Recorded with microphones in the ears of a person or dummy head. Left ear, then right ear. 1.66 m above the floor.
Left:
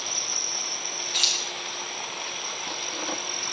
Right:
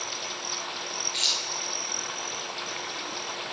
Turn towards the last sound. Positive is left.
turn(degrees=15)  # may be behind; listen again after turning